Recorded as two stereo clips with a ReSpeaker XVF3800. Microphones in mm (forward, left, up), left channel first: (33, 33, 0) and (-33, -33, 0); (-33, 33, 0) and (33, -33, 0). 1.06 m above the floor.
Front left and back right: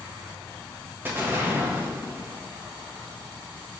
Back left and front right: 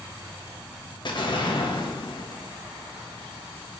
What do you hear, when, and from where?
0.0 s an insect: 55° right, 1.3 m
1.1 s an explosion: 160° left, 1.2 m